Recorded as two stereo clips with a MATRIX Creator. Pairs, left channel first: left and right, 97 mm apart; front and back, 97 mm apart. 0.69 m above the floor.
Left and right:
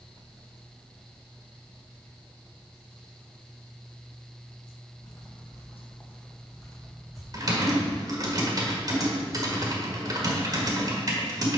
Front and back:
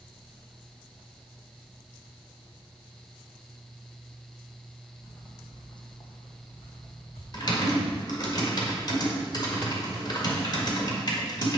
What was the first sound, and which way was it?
Footsteps, 55° left.